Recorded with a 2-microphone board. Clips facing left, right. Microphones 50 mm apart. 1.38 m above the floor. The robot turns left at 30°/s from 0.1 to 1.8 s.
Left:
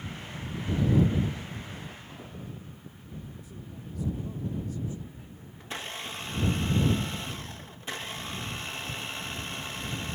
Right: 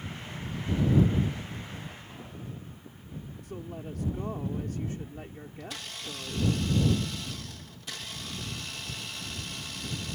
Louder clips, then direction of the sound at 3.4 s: Right 5 dB; 60° right (ahead or behind).